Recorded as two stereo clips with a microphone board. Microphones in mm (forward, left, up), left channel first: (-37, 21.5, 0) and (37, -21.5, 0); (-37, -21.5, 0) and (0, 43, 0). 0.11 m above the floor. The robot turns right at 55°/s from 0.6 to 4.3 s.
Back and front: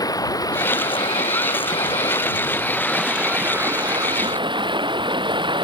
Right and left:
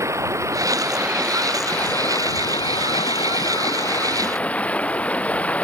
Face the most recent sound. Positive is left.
turn(degrees=-50)